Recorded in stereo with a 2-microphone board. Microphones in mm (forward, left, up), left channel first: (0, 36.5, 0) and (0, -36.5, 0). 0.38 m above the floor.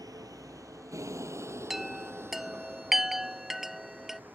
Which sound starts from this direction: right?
A vehicle, at 0.0 s.